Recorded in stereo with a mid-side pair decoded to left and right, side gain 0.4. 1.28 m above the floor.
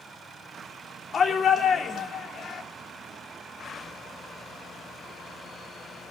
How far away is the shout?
About 3.5 m.